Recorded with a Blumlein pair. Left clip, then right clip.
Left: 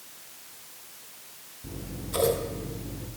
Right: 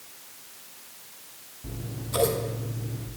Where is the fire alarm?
No fire alarm in this recording.